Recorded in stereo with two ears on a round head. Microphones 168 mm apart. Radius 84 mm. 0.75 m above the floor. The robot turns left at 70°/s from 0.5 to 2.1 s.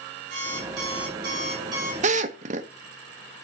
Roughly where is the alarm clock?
Right.